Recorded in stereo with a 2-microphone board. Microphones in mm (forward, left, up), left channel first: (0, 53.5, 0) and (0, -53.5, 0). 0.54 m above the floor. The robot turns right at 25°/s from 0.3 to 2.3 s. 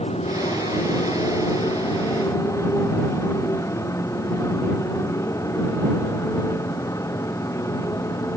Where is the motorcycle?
105° left; by 8.4 s 155° left.